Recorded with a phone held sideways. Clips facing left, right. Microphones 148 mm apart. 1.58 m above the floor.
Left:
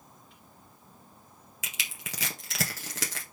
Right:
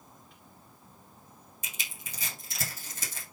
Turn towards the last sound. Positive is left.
turn(degrees=80)